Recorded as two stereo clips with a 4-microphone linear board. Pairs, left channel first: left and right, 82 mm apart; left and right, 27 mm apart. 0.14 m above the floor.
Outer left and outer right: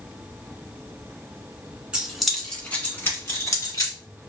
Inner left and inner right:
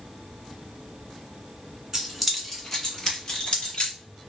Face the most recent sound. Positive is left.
turn(degrees=50)  # may be behind; listen again after turning